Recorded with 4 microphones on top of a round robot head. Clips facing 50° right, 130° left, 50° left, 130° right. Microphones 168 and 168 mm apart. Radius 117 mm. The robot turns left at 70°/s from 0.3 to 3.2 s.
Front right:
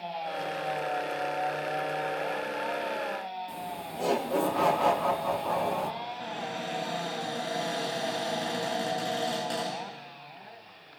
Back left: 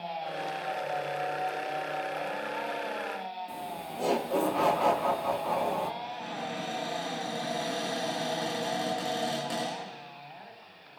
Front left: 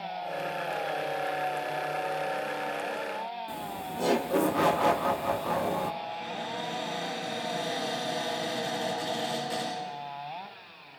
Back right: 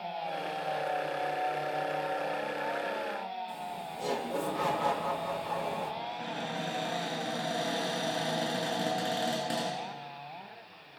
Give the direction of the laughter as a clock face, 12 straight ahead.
11 o'clock.